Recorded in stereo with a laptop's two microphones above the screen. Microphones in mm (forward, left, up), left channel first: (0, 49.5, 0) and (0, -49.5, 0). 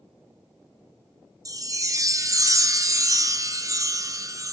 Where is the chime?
35° right (ahead or behind), 0.7 m.